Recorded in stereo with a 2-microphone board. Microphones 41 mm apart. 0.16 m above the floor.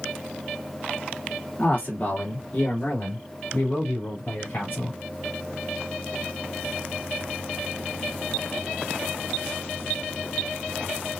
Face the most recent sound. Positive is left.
turn(degrees=40)  # may be behind; listen again after turning